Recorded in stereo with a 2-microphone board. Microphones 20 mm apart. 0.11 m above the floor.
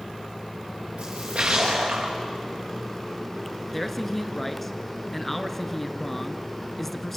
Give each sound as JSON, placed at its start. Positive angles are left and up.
{"t": 1.0, "sound": "a splash", "side_deg": -65, "distance_m": 5.5}
{"t": 3.7, "sound": "a man speaking", "side_deg": 10, "distance_m": 1.1}